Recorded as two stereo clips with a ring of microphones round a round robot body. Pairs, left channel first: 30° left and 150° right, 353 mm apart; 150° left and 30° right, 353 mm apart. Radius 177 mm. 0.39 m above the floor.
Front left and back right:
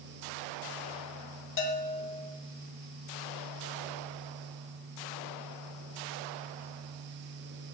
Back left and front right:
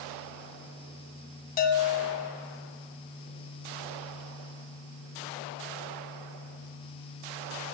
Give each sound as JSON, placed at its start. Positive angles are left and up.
{"t": 1.6, "sound": "a bell", "azimuth_deg": 85, "distance_m": 1.9}